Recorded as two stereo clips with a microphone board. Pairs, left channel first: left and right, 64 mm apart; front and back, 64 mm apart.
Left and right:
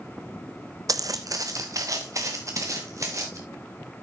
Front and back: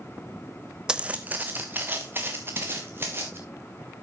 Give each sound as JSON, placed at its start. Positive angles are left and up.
{"t": 0.9, "sound": "footsteps", "azimuth_deg": -100, "distance_m": 0.6}